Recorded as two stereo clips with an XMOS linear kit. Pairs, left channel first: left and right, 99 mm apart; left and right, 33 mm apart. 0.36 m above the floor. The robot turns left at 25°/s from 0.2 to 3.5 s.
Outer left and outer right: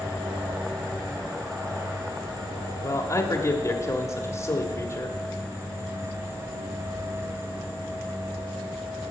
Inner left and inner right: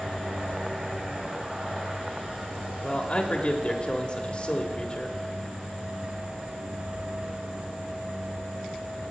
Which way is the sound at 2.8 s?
30° left (ahead or behind).